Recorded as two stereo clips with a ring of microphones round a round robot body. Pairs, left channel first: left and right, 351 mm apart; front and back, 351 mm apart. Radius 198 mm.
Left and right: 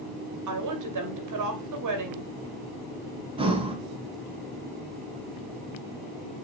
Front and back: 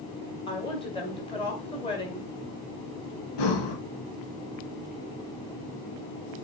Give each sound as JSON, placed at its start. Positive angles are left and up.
{"t": 0.5, "sound": "a woman speaking", "azimuth_deg": -75, "distance_m": 2.0}
{"t": 3.4, "sound": "breathing", "azimuth_deg": -15, "distance_m": 1.4}